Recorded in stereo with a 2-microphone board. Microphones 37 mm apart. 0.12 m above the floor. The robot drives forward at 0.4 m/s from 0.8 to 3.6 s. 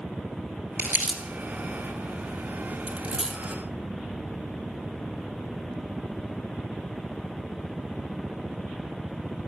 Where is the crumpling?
50° right (ahead or behind), 1.9 m.